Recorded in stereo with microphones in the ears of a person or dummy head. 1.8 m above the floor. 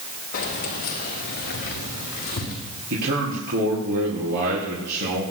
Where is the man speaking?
60° right (ahead or behind), 4.5 m.